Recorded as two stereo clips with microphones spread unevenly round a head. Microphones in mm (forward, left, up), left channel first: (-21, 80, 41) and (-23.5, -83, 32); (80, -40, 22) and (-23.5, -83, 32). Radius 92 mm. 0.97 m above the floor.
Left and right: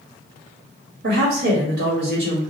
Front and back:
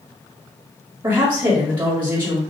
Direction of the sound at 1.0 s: 105° right.